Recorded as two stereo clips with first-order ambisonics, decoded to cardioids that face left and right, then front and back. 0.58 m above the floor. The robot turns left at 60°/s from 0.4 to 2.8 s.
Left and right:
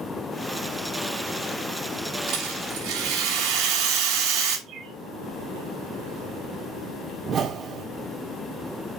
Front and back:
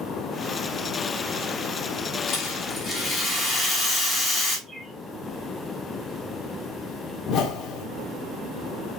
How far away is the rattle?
About 4.5 m.